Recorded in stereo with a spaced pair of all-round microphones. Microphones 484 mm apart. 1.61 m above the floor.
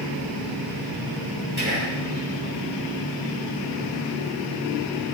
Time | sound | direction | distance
1.6 | whispering | 20° right (ahead or behind) | 3 m